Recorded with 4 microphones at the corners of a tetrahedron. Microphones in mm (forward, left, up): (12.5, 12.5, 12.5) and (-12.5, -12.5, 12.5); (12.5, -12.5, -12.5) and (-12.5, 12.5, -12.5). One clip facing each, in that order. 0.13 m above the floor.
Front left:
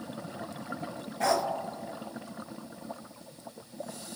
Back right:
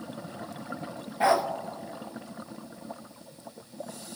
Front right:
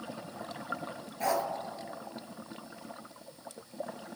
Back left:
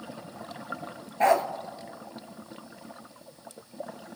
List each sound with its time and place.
1.2 s a dog barking: 165° left, 0.5 m